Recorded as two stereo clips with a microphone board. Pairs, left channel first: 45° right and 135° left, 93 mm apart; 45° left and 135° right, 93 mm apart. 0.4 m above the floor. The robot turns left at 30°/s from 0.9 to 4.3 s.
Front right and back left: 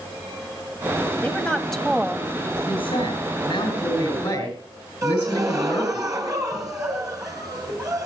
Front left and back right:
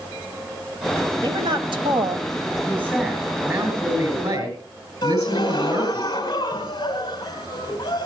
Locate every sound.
1.2 s a woman speaking: 115° right, 1.8 m; by 2.3 s 145° right, 1.8 m
2.7 s a woman speaking: 55° right, 7.5 m; by 6.0 s 105° right, 7.5 m
5.0 s a gasp: 85° left, 3 m